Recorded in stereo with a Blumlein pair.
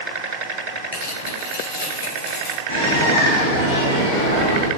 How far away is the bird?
About 2.0 m.